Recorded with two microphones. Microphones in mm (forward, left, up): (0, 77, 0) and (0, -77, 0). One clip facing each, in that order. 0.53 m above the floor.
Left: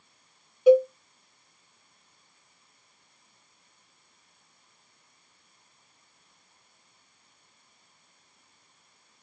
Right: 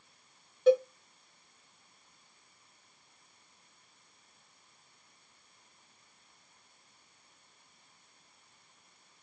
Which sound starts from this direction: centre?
A cowbell, at 0.7 s.